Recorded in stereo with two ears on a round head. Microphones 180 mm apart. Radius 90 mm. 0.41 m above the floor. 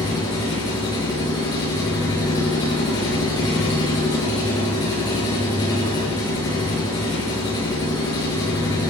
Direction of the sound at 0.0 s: 20° left (ahead or behind).